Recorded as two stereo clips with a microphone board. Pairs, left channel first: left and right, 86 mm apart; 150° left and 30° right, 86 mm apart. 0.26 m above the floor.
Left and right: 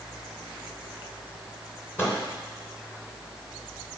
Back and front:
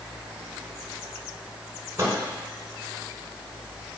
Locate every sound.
2.0 s a microwave: 30° left, 2.5 m